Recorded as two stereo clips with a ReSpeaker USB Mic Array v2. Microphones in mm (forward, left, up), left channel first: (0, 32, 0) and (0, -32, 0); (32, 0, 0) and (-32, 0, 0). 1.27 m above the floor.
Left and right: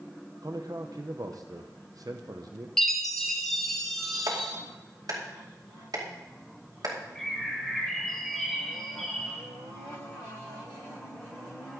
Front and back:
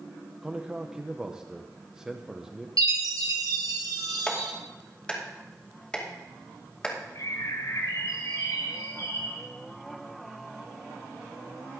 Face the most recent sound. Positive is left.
turn(degrees=5)